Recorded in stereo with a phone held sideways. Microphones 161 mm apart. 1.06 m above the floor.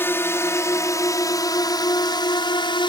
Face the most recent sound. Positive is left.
turn(degrees=30)  # may be behind; listen again after turning